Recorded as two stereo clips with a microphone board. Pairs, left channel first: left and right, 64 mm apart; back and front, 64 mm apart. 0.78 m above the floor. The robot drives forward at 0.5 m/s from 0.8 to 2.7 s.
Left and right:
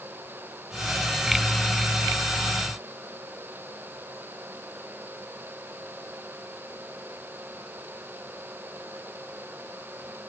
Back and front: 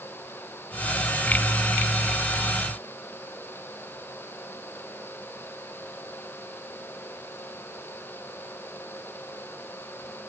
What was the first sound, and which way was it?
Only background noise.